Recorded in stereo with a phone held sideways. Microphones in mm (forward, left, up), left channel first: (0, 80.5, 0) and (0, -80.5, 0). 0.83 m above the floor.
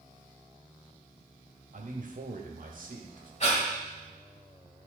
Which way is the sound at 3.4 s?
45° left (ahead or behind).